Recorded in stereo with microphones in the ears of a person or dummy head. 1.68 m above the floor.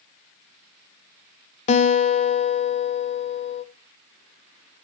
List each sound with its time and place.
1.7 s a guitar: 40° left (ahead or behind), 0.7 m